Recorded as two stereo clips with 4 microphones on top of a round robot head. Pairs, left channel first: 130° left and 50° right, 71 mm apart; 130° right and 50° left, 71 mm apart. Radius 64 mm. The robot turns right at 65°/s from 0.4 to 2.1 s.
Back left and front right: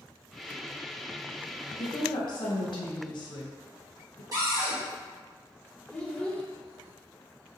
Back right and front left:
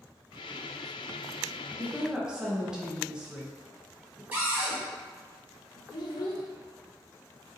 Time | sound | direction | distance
1.8 | a woman speaking | 110° left | 0.7 m
4.3 | a cupboard door | 10° right | 1.4 m
5.9 | a child speaking | 155° right | 0.5 m